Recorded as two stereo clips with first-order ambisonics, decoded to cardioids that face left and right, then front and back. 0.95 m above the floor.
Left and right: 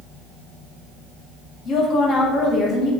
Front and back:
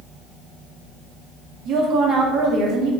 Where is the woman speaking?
140° left, 0.6 m.